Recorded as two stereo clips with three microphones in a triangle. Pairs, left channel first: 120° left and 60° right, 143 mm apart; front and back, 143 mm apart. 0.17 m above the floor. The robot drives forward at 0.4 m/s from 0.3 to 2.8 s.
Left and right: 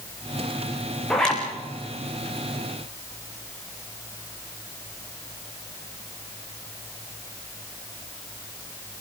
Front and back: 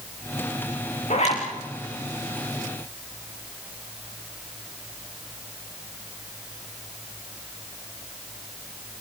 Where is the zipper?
35° left, 5.5 m.